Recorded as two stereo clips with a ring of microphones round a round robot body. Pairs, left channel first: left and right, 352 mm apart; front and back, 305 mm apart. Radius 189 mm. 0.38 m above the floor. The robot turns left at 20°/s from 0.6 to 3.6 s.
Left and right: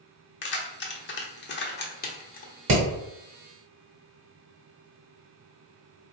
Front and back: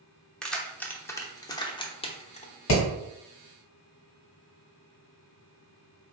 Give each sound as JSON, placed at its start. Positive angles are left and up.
{"t": 0.4, "sound": "keys jangling", "azimuth_deg": 85, "distance_m": 0.8}
{"t": 2.7, "sound": "hammering", "azimuth_deg": -40, "distance_m": 1.3}